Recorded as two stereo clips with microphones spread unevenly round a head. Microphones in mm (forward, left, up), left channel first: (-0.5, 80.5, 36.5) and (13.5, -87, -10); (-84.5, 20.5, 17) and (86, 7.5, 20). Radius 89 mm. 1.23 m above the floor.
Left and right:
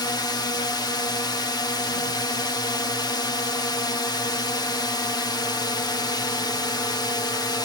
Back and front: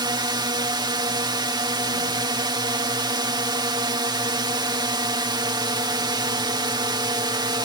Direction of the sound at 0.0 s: 20° left.